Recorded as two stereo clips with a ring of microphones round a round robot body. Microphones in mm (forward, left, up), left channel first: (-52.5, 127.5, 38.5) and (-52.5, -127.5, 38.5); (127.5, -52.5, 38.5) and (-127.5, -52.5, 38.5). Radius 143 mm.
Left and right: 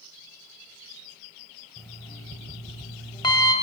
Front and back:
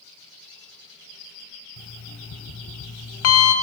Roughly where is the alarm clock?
Ahead.